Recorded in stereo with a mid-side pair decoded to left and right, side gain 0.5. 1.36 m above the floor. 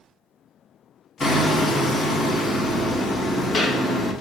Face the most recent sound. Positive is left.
turn(degrees=40)